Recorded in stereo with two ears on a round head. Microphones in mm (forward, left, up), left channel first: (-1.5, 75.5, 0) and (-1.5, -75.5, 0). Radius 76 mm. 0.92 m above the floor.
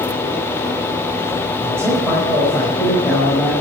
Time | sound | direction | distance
1.6 | a man speaking | 10° left (ahead or behind) | 5 m